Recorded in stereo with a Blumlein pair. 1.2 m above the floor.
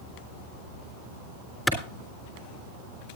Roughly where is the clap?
Ahead.